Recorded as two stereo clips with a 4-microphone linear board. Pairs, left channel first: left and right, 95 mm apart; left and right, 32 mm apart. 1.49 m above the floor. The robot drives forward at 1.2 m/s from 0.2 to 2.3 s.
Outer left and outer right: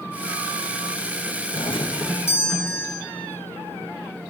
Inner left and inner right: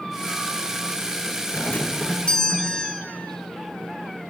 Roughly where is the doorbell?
Left.